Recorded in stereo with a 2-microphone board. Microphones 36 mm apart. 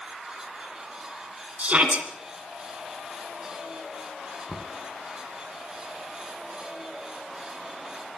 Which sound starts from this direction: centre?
Knocking, at 4.5 s.